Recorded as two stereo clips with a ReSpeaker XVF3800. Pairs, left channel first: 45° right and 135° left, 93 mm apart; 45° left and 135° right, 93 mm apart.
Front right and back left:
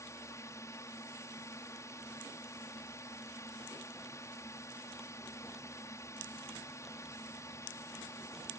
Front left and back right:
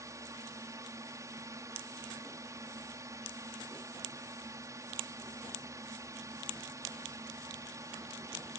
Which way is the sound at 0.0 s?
90° right.